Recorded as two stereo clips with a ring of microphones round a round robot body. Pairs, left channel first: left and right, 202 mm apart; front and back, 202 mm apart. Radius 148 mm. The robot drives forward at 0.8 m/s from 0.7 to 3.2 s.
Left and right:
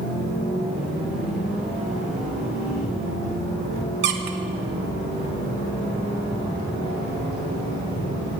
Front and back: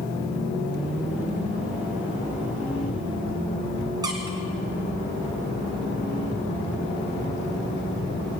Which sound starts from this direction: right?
A squeak, at 4.0 s.